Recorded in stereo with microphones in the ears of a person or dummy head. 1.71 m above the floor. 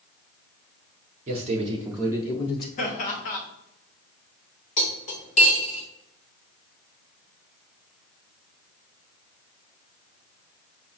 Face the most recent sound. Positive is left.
turn(degrees=35)  # may be behind; listen again after turning